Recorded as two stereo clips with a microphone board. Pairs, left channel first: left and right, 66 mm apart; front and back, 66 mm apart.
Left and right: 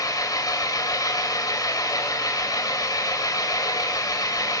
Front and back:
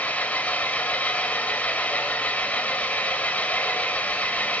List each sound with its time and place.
0.0 s an engine running: 70° left, 2.5 m